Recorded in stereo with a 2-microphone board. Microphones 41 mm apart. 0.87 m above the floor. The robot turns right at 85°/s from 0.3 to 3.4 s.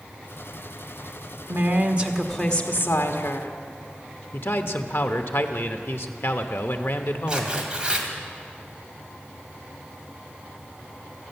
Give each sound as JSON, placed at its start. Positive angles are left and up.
{"t": 1.5, "sound": "a woman speaking", "azimuth_deg": -65, "distance_m": 1.1}
{"t": 4.3, "sound": "a man speaking", "side_deg": 60, "distance_m": 0.9}
{"t": 7.3, "sound": "tearing paper", "side_deg": -20, "distance_m": 1.8}